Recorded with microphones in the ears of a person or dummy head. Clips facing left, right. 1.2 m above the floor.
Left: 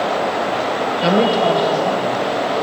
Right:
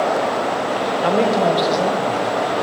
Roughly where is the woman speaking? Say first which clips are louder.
Left 2 dB; left.